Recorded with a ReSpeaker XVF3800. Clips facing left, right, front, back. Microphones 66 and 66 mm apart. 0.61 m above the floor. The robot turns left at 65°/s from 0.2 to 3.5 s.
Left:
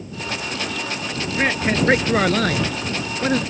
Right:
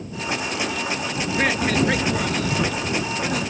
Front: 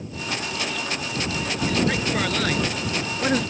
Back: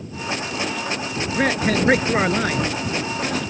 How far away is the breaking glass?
I don't hear breaking glass.